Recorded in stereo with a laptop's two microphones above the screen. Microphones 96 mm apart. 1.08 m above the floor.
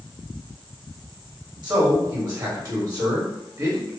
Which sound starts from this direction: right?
A man speaking, at 1.6 s.